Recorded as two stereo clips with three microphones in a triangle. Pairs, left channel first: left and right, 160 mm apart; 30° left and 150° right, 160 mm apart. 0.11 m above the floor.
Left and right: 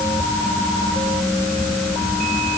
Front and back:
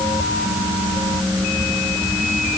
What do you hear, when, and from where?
Only background noise.